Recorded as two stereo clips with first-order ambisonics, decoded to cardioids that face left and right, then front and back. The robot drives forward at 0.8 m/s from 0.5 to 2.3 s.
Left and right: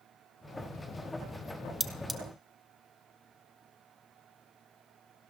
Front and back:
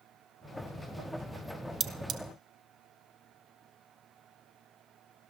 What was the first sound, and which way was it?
Cutlery clinking, 165° right.